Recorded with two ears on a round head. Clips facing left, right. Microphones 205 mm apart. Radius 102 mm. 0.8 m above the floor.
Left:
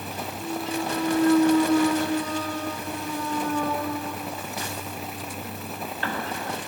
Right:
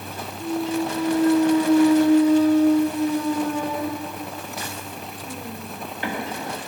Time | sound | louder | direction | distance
0.4 | a clunk | right 6 dB | 15° right (ahead or behind) | 0.7 m